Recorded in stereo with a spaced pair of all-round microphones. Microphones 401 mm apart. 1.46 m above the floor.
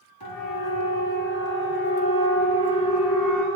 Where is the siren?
65° left (ahead or behind), 4 m; by 3.5 s 5° left (ahead or behind), 3 m.